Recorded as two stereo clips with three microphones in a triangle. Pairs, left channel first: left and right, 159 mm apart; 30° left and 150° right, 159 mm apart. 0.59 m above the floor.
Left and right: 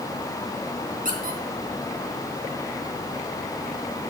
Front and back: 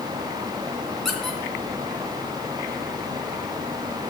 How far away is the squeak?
About 2.5 m.